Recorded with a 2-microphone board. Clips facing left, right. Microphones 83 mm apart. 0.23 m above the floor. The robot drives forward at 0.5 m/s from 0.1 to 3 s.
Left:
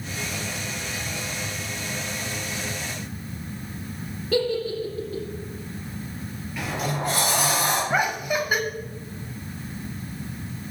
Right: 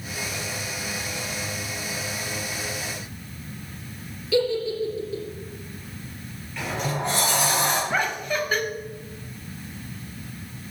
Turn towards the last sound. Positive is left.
turn(degrees=15)  # may be behind; listen again after turning